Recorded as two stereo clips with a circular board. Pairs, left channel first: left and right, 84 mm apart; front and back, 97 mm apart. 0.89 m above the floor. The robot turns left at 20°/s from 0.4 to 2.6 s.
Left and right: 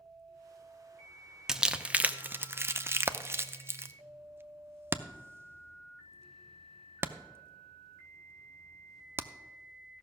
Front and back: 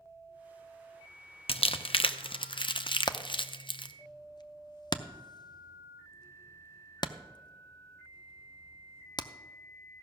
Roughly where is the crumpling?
Ahead.